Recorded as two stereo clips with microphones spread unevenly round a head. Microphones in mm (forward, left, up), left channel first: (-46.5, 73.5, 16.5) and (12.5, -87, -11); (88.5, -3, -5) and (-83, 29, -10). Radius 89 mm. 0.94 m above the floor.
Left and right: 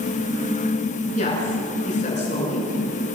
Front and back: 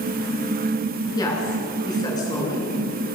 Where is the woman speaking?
60° left, 9.5 m.